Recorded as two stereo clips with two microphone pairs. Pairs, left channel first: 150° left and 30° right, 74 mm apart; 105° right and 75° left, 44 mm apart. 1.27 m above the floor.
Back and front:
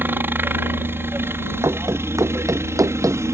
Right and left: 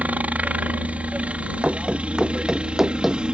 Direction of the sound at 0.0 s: 25° left.